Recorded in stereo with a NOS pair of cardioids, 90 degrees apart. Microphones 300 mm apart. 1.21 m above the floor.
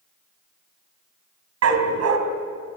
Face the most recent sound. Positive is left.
turn(degrees=-60)